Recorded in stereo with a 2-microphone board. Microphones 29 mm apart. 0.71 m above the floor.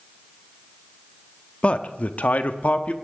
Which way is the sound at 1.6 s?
45° left (ahead or behind).